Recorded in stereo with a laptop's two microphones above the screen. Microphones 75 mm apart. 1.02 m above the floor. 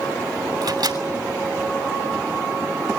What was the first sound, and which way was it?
A microwave, 65° right (ahead or behind).